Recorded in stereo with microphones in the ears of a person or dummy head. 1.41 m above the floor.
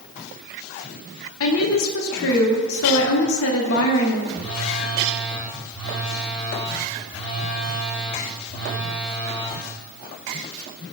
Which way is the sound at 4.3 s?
Centre (ahead or behind).